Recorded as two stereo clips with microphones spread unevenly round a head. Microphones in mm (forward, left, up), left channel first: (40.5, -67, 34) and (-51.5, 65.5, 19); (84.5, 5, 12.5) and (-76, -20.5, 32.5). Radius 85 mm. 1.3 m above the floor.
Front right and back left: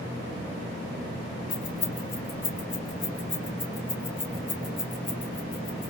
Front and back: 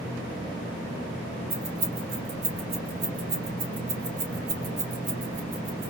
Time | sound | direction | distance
1.5 | keys jangling | 125° right | 3 m